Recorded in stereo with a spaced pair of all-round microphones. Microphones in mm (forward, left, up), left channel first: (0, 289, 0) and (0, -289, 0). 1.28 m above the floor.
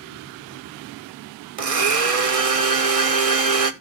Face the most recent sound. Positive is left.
turn(degrees=-70)  # may be behind; listen again after turning